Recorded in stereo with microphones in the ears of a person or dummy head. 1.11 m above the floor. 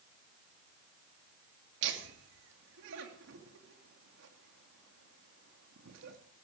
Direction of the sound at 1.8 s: 65° right (ahead or behind).